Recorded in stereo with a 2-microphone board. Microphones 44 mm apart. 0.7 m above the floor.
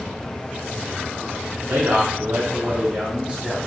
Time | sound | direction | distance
1.6 | a man speaking | 65° right (ahead or behind) | 2.0 m